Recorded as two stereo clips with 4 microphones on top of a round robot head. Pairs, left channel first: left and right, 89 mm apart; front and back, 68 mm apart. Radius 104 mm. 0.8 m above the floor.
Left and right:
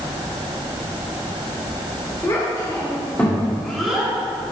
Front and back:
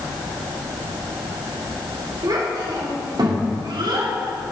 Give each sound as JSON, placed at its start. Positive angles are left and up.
{"t": 2.2, "sound": "a child speaking", "azimuth_deg": 155, "distance_m": 2.0}